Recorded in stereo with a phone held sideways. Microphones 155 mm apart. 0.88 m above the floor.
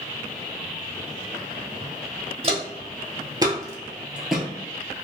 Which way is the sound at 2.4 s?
40° right (ahead or behind).